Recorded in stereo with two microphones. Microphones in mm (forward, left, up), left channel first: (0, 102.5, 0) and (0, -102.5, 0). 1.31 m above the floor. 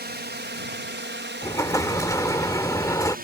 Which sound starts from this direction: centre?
An explosion, at 1.4 s.